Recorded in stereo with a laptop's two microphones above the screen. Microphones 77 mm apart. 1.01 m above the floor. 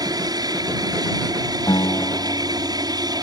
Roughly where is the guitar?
Left.